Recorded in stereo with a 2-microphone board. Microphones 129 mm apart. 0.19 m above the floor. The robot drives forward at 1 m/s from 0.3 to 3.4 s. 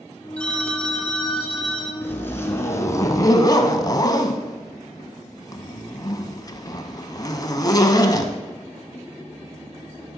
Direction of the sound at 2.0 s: 15° left (ahead or behind).